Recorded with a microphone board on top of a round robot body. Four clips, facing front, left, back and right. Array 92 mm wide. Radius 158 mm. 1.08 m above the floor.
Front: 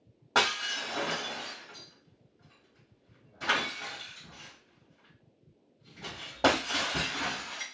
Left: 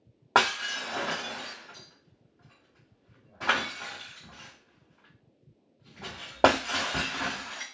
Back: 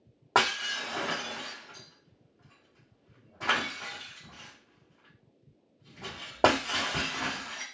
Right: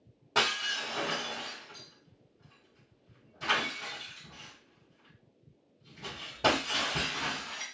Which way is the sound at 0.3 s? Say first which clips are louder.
Left 6 dB, back 2 dB; 120° left.